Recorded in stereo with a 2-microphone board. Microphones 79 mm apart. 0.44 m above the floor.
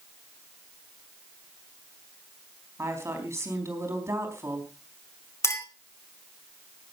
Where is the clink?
35° left (ahead or behind), 2.5 m.